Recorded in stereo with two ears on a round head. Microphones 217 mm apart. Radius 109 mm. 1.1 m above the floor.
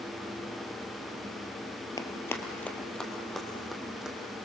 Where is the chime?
No chime in this recording.